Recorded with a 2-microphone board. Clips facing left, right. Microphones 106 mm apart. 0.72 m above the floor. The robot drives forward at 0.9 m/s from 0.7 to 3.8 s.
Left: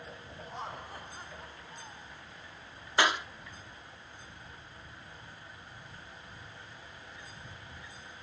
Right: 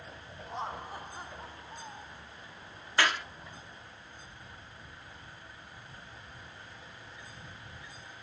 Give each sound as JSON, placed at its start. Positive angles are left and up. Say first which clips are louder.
{"t": 0.5, "sound": "laughter", "louder": "right 4 dB", "side_deg": -20}
{"t": 3.0, "sound": "a clap", "louder": "left 1 dB", "side_deg": 20}